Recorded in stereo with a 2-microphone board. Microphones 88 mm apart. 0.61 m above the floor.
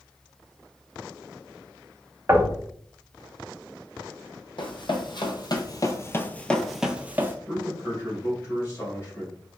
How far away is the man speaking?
About 2.5 m.